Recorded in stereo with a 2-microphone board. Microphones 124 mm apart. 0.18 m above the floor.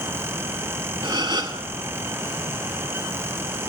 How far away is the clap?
No clap in this recording.